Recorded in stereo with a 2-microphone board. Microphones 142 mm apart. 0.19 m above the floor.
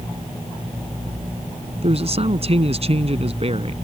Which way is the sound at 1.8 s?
50° right (ahead or behind).